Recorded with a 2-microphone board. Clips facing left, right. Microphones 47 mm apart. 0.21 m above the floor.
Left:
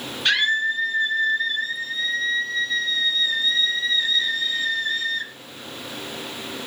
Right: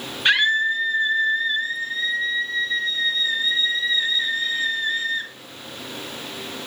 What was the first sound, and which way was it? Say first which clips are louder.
A scream: right 2 dB; 20° right (ahead or behind).